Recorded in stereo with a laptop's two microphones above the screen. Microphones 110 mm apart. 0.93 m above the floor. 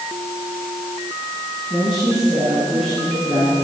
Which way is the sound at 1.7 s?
55° left (ahead or behind).